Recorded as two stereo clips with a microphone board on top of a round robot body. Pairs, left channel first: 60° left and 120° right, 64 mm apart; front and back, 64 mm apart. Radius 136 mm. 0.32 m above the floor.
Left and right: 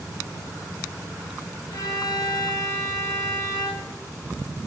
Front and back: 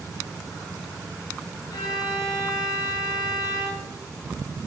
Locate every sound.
1.7 s a violin: 25° left, 1.2 m